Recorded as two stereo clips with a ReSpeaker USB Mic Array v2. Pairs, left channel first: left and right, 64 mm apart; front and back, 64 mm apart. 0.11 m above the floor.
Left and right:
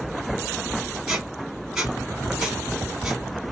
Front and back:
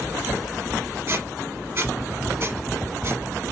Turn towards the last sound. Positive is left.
turn(degrees=-160)